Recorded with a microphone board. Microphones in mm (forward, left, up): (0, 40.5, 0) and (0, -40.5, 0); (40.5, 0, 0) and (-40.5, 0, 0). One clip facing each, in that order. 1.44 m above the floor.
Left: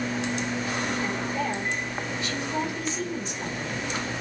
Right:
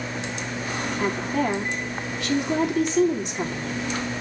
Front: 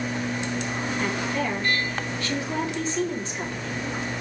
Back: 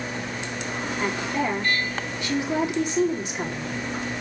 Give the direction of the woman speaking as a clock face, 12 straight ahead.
4 o'clock.